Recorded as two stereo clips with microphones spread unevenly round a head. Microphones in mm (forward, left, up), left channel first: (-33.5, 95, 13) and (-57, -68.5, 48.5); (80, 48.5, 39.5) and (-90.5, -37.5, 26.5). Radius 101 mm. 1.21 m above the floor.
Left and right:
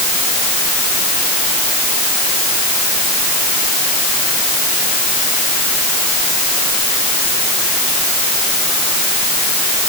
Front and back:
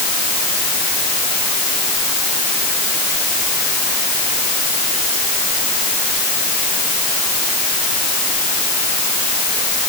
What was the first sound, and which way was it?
Only background noise.